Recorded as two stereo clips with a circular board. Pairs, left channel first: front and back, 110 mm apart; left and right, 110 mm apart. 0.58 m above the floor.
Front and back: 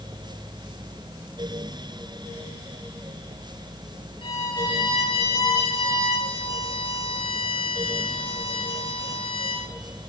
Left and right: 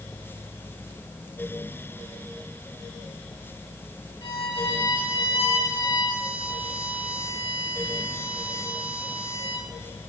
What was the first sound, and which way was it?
A violin, 45° left.